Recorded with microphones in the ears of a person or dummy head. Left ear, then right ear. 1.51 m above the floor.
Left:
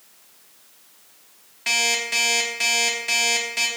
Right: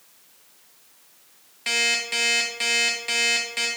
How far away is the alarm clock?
About 0.8 m.